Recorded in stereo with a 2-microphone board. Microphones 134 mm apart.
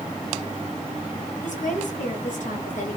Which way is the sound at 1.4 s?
75° left (ahead or behind).